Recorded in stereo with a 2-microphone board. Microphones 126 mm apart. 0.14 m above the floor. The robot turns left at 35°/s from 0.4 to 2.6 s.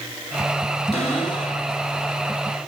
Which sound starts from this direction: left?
A cupboard door, at 0.9 s.